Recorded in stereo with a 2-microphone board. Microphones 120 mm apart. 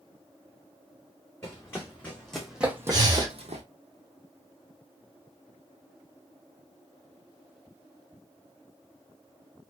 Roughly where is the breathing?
Right.